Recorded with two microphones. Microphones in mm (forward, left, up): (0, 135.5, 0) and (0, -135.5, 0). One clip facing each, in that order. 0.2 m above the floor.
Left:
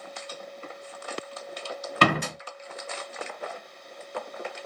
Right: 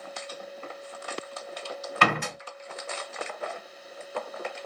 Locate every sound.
2.0 s a door slam: 40° left (ahead or behind), 0.8 m